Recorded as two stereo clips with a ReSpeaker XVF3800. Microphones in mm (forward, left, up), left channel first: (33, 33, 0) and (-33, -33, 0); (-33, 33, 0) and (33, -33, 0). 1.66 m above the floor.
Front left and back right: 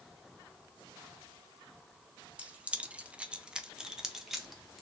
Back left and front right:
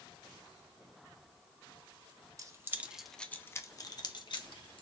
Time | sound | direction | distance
2.4 | keys jangling | 65° right | 0.7 m